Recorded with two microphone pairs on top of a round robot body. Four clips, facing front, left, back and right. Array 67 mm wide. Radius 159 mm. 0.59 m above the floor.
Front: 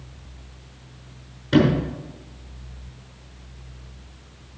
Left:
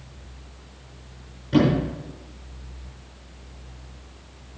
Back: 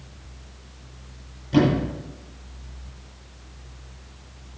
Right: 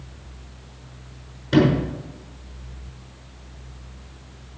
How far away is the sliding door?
About 6.5 m.